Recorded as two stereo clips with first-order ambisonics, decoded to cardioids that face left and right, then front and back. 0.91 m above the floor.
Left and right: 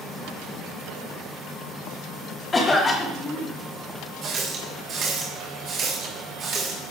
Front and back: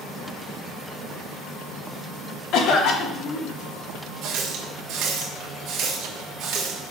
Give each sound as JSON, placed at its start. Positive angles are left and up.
{"t": 2.5, "sound": "a cough", "azimuth_deg": 20, "distance_m": 1.4}
{"t": 4.2, "sound": "a running tap", "azimuth_deg": -145, "distance_m": 1.8}